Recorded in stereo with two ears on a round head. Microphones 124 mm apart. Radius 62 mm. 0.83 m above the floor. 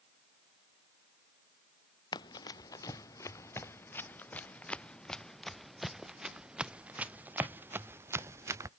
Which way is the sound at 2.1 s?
30° left (ahead or behind).